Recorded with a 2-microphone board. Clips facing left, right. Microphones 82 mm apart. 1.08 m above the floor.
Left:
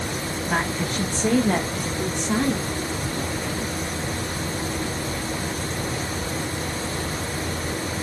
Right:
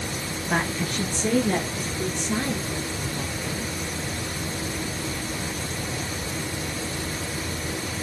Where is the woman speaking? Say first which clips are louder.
Even; 5° left (ahead or behind), 0.7 m; by 3.7 s 75° left (ahead or behind), 2.5 m.